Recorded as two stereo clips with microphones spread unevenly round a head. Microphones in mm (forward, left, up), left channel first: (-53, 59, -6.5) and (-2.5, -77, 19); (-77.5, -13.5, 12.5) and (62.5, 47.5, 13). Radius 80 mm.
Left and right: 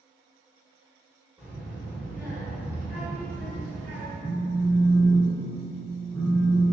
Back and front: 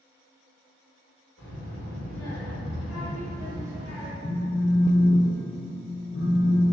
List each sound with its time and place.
1.4 s a child speaking: 150° right, 1.5 m
4.2 s a phone buzzing: 170° right, 1.0 m